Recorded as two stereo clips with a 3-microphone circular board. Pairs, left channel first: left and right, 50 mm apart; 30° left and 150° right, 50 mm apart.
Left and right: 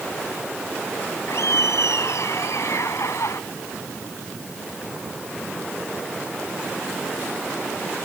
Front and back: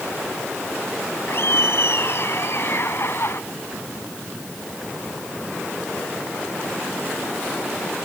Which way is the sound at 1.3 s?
70° left.